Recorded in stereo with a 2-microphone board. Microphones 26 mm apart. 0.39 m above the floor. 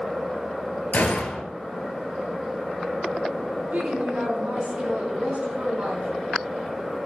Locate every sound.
0.9 s a gunshot: 75° left (ahead or behind), 1.8 m
3.7 s a woman speaking: 70° right (ahead or behind), 4.5 m